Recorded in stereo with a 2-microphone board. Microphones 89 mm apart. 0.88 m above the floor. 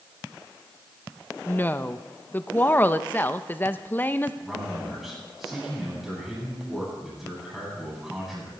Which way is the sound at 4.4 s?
5° right (ahead or behind).